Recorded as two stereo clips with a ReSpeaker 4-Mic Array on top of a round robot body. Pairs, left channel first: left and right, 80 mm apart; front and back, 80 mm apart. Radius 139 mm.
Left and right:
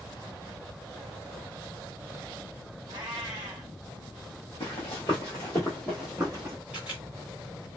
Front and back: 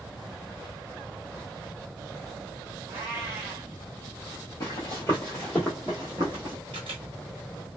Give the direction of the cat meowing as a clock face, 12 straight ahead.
4 o'clock.